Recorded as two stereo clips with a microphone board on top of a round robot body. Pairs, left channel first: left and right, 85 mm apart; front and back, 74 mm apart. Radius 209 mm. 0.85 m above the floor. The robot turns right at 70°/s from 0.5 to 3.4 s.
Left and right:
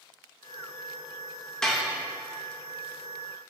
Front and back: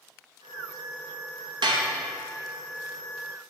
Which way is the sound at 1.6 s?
170° left.